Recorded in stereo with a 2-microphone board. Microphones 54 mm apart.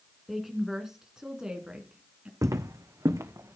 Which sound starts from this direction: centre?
A woman speaking, at 0.3 s.